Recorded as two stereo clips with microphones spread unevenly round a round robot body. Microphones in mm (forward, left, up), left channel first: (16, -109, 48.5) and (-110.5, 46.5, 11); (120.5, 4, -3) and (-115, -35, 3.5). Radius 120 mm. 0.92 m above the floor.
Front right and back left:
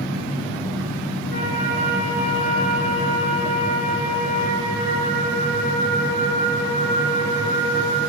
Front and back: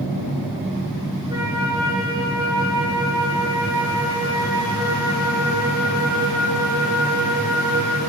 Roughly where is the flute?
Right.